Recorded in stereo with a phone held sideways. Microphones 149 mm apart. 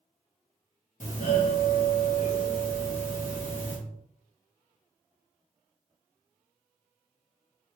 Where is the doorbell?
60° left (ahead or behind), 1.1 m.